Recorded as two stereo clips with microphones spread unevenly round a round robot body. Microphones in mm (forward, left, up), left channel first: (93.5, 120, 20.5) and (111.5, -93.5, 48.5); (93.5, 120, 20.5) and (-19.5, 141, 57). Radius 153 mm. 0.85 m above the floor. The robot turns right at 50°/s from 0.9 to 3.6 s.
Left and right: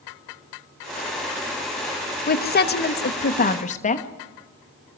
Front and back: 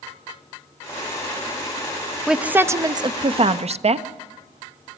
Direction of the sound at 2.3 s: 70° left.